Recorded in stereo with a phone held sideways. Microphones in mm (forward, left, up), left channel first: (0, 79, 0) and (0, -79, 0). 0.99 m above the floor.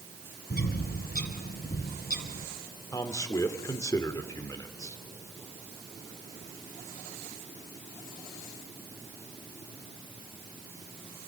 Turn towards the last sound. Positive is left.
turn(degrees=20)  # may be behind; listen again after turning